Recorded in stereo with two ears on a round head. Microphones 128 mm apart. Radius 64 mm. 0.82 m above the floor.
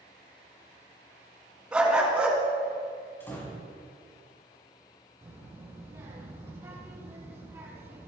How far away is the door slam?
About 5.5 m.